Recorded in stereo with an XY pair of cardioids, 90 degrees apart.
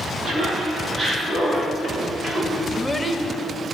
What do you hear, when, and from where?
0.2 s laughter: 60° right, 3 m; by 2.6 s 40° right, 3.5 m
2.7 s a child speaking: 5° left, 1.1 m